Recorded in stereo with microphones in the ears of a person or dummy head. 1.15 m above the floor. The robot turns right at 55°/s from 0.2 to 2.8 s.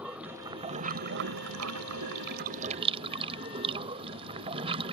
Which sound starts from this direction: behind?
Running water, at 0.0 s.